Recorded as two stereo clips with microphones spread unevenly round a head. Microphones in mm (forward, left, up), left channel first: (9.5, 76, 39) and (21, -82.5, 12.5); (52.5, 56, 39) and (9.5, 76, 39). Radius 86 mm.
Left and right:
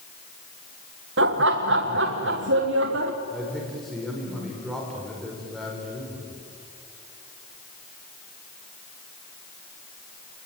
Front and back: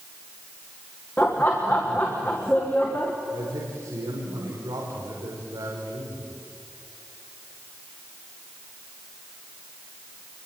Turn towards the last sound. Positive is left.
turn(degrees=180)